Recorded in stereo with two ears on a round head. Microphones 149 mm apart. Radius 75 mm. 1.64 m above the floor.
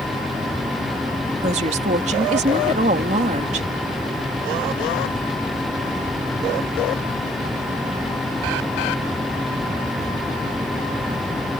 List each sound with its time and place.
1.4 s a woman speaking: 45° right (ahead or behind)